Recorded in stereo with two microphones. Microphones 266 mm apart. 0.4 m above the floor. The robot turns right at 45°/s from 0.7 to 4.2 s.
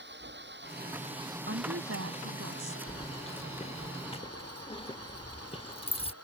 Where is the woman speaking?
130° right; by 2.8 s 75° right.